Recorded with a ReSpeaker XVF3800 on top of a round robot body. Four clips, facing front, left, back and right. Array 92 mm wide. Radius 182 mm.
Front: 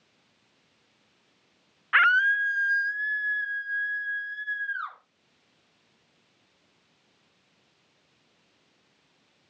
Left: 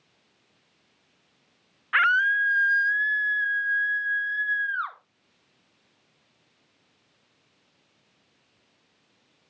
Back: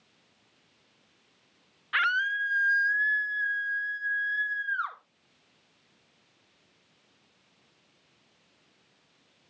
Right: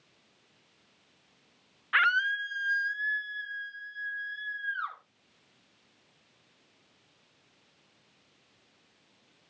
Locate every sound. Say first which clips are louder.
1.9 s a scream: left 5 dB, front 6 dB; 25° left, 0.9 m; by 5.0 s 110° left, 2.5 m